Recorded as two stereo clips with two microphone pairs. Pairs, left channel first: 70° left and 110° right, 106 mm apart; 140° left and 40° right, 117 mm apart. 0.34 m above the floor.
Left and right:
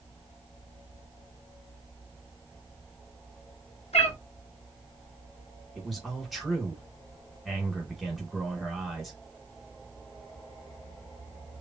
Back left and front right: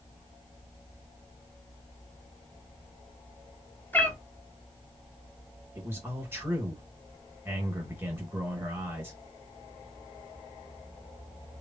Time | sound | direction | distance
3.9 | a cat meowing | 70° left | 0.8 m
5.8 | a man speaking | 20° right | 1.3 m